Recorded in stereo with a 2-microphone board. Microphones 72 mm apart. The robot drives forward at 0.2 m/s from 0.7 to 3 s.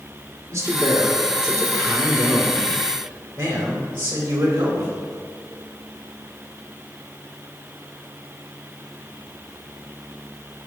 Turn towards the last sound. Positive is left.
turn(degrees=-35)  # may be behind; listen again after turning